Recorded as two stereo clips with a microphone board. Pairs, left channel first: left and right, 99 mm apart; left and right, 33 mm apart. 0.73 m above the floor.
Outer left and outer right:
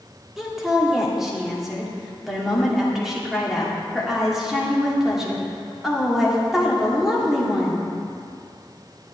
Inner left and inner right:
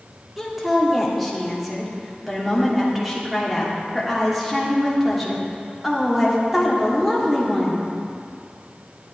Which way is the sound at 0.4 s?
5° right (ahead or behind).